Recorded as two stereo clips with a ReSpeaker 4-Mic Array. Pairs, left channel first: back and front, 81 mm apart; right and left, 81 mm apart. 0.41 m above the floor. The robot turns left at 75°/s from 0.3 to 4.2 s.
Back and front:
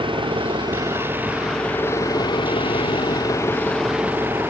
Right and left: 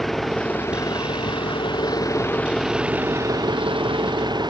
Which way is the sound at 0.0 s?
Straight ahead.